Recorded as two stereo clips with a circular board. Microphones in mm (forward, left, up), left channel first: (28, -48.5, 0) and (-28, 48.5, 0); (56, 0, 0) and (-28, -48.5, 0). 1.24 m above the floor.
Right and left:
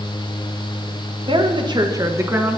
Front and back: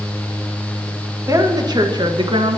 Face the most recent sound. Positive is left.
turn(degrees=-165)